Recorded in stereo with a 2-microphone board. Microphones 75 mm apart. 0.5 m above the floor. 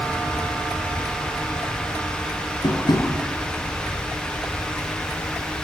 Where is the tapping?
70° left (ahead or behind), 5 m.